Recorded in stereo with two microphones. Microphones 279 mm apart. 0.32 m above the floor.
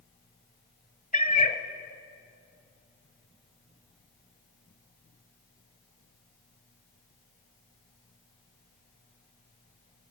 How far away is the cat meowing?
About 0.8 m.